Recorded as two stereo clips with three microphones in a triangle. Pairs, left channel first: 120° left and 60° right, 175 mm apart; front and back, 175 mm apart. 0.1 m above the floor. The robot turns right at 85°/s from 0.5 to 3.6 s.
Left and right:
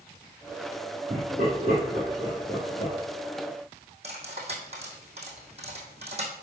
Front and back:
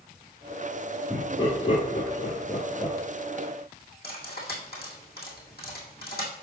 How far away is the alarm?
I don't hear an alarm.